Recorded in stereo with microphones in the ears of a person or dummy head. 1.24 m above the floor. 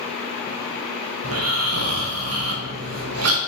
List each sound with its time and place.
1.2 s snoring: 80° right, 1.0 m